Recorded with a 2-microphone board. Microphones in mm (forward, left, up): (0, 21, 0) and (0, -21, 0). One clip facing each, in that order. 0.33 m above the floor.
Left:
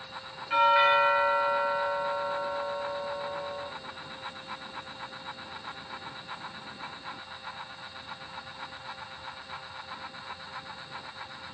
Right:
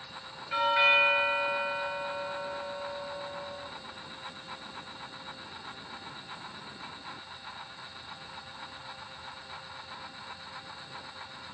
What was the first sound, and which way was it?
A doorbell, 55° left (ahead or behind).